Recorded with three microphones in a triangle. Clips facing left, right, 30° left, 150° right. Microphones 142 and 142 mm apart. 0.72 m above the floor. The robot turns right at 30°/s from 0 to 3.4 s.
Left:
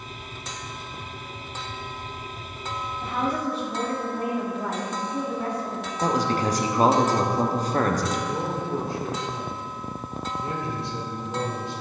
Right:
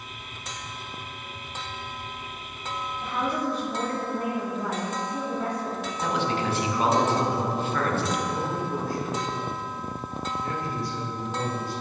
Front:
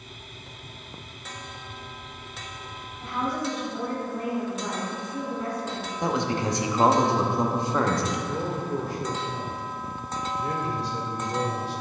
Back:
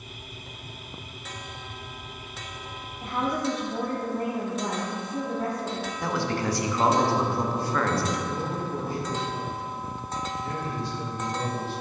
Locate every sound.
3.0 s a woman speaking: 160° left, 1.2 m; by 5.9 s 175° left, 1.2 m
6.0 s a man speaking: 85° left, 0.7 m
8.3 s a man speaking: 25° left, 1.9 m